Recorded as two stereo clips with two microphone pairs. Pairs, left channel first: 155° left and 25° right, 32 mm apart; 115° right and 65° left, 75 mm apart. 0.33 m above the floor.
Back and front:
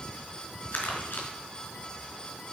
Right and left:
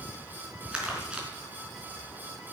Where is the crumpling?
140° left, 4 m.